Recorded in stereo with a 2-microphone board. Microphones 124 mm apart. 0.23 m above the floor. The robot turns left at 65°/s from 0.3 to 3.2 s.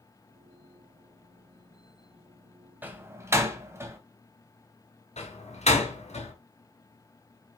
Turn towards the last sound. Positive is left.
turn(degrees=60)  # may be behind; listen again after turning